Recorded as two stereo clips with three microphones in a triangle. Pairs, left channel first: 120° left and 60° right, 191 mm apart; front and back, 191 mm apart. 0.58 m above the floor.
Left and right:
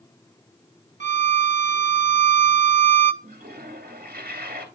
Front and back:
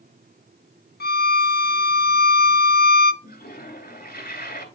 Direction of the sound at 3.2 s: 35° right.